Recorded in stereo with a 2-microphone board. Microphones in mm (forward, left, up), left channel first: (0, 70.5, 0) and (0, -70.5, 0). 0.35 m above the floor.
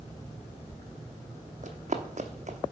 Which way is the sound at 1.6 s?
55° right (ahead or behind).